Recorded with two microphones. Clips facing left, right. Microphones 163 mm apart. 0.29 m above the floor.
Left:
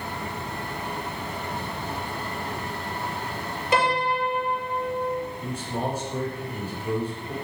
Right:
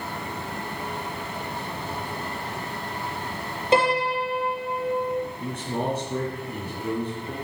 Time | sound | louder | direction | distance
3.7 | a piano | right 2 dB | 25° right (ahead or behind) | 5.5 m
5.4 | a man speaking | right 1 dB | 60° right (ahead or behind) | 3.5 m